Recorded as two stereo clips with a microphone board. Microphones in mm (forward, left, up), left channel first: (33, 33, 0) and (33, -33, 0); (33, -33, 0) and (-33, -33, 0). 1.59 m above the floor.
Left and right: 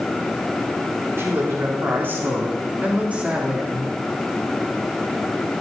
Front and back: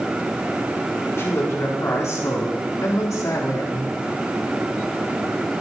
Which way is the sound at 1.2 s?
45° right.